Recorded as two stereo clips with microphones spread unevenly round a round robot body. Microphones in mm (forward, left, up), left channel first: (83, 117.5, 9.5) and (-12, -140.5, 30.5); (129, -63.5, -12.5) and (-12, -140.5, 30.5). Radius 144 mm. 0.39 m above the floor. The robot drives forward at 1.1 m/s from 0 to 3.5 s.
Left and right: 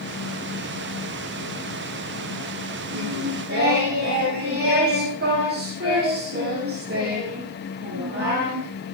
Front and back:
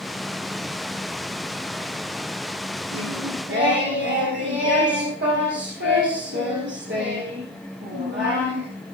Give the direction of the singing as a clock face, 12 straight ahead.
6 o'clock.